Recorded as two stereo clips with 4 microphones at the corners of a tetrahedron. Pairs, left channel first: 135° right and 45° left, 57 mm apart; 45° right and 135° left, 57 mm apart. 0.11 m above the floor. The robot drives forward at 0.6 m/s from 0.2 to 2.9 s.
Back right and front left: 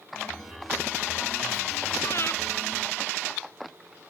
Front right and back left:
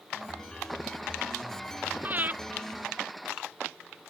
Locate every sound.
2.0 s breathing: 170° right